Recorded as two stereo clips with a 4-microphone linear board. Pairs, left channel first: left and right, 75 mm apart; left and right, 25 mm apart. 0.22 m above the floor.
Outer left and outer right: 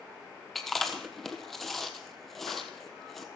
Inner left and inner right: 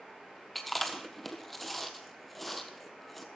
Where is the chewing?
5° left (ahead or behind), 1.4 m.